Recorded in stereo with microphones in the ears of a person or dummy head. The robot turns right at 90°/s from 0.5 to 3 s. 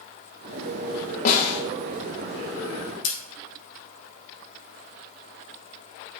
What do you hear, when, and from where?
1.2 s a snare drum: 60° left, 1.3 m; by 1.6 s 90° left, 1.3 m
3.0 s scissors: 65° left (ahead or behind), 3 m